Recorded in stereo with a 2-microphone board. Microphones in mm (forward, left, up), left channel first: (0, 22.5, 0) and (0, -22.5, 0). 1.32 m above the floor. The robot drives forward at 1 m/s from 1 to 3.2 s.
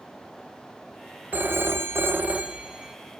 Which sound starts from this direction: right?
A phone ringing, at 1.3 s.